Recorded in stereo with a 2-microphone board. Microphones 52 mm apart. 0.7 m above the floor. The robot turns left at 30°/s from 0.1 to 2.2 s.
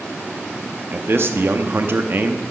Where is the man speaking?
80° right, 0.7 m; by 2.4 s 120° right, 0.7 m.